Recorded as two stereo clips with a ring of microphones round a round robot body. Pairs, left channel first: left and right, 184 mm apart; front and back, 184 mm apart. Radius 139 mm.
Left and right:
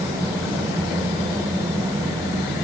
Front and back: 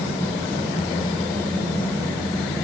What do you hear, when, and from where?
Only background noise.